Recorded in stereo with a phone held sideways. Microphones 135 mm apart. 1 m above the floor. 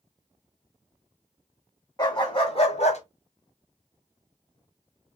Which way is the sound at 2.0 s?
30° left (ahead or behind).